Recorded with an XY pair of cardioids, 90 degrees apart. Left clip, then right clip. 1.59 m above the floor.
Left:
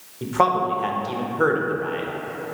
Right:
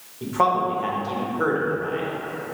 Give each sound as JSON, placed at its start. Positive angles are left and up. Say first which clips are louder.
{"t": 0.2, "sound": "a man speaking", "louder": "left 1 dB", "azimuth_deg": 30, "distance_m": 0.5}